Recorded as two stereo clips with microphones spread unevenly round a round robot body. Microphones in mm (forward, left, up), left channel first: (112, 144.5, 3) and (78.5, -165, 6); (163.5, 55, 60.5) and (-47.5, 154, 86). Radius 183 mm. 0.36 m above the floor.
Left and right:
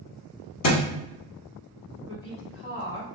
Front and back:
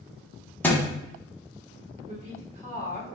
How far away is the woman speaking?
About 1.5 m.